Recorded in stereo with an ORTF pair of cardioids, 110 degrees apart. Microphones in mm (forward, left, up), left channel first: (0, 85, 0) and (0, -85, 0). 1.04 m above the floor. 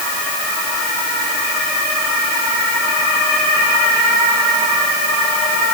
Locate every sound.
Only background noise.